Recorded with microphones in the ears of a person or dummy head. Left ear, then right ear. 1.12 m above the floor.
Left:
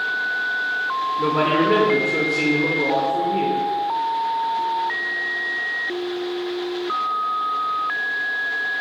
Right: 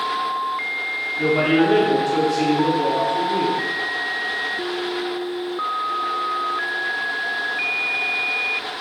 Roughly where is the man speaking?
Centre.